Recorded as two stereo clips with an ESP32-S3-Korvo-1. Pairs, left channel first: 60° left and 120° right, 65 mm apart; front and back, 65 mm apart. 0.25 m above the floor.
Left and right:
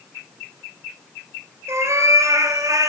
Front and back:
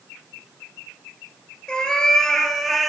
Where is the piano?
No piano in this recording.